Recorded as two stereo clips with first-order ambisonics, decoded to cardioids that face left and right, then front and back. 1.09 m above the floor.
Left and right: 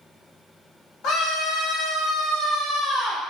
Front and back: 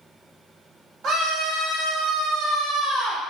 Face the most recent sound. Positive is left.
turn(degrees=150)